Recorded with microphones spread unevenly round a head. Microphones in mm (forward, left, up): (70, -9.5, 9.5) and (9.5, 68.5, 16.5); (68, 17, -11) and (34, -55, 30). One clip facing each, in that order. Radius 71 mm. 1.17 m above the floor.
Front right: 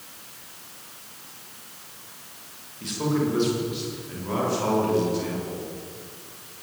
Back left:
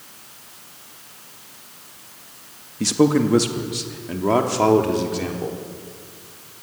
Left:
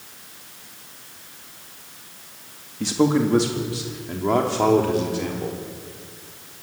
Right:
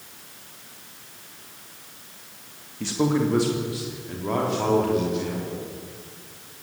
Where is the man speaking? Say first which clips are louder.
Back left 8 dB, left 3 dB; 135° left, 2 m; by 5.6 s 120° left, 4 m.